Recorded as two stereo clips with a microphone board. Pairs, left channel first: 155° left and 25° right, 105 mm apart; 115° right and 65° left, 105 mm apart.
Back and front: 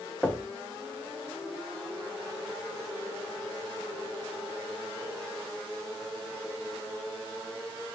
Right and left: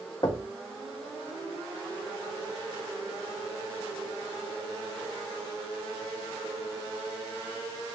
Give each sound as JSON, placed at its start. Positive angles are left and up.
{"t": 0.2, "sound": "knocking", "azimuth_deg": -130, "distance_m": 0.7}